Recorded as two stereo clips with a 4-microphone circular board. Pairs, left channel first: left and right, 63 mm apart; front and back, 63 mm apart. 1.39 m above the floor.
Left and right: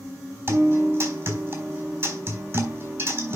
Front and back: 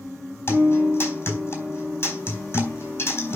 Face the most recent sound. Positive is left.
turn(degrees=-50)